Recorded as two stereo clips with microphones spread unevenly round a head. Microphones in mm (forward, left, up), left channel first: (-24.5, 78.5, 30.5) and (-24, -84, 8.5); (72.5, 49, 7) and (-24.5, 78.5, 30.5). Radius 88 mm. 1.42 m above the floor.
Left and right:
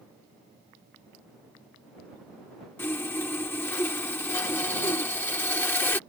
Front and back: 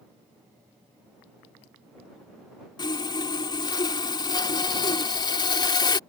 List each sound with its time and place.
2.8 s sawing: 25° left